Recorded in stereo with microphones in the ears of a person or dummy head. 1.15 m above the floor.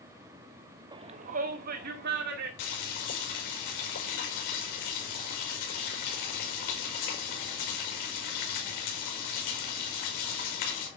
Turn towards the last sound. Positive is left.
turn(degrees=65)  # may be behind; listen again after turning